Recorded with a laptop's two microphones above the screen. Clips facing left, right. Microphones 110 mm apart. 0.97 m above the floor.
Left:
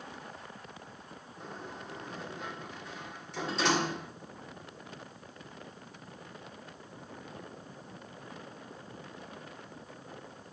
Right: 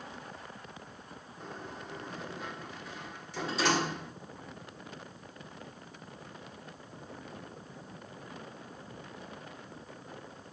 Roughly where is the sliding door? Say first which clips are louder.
Even; centre.